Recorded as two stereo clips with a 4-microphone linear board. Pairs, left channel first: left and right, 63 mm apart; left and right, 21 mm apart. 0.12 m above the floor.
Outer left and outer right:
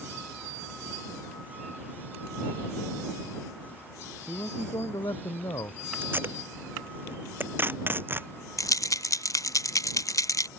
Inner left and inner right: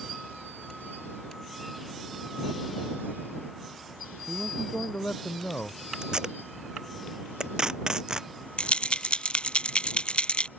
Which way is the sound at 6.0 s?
35° right (ahead or behind).